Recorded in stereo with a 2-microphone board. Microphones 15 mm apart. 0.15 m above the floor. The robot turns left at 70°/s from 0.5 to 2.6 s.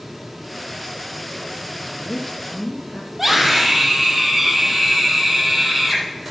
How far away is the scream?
About 5.5 m.